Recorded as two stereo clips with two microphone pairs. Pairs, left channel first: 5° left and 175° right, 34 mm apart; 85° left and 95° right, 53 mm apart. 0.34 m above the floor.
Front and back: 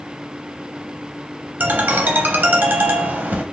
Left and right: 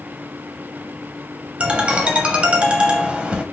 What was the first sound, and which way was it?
A ringtone, 160° right.